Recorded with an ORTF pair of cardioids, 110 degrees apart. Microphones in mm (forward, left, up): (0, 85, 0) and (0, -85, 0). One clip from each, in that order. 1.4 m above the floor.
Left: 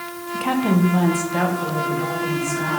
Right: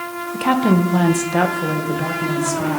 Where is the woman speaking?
20° right, 1.0 m; by 2.8 s 35° right, 2.5 m.